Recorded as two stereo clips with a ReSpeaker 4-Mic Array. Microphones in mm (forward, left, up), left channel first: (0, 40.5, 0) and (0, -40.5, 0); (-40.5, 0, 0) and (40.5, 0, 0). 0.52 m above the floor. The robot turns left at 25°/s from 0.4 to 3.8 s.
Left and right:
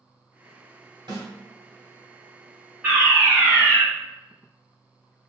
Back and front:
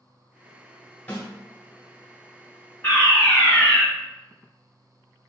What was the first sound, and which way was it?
A snare drum, 105° right.